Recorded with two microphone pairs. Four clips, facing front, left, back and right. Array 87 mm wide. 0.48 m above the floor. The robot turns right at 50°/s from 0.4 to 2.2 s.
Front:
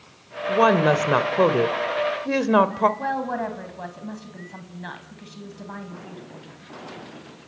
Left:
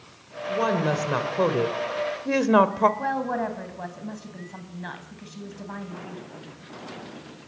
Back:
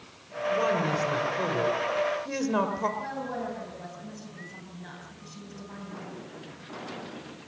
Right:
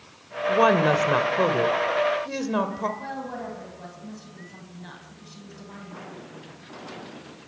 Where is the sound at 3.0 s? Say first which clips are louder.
Left 7 dB, front 8 dB; 45° left, 3 m.